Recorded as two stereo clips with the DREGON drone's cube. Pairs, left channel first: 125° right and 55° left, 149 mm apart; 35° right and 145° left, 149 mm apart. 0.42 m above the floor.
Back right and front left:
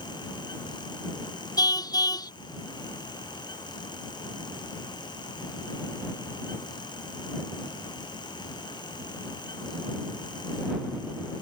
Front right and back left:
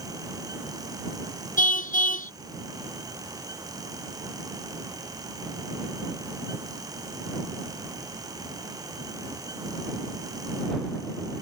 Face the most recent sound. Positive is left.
turn(degrees=-60)